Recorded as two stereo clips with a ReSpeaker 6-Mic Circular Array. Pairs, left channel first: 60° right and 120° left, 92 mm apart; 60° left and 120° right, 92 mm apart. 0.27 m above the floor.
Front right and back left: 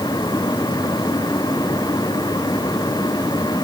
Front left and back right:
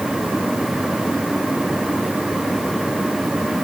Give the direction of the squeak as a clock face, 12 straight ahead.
No squeak in this recording.